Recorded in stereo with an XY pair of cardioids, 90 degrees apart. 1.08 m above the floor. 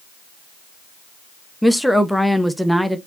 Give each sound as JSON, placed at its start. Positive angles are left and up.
{"t": 1.6, "sound": "a woman speaking", "azimuth_deg": 0, "distance_m": 1.0}